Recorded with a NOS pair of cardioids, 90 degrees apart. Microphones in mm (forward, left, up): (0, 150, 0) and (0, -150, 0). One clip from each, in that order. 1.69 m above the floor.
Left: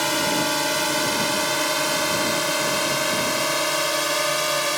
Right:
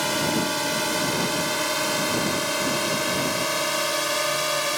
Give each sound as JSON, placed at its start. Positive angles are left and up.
{"t": 0.0, "sound": "a drone", "azimuth_deg": 50}